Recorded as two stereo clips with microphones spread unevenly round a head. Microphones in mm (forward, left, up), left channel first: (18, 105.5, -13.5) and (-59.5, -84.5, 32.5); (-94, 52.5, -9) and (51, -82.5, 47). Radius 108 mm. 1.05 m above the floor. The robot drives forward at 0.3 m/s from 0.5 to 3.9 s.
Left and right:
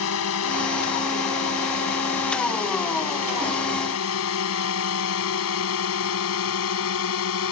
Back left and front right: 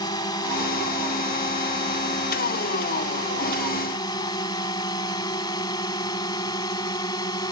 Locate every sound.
0.0 s a drone: 65° left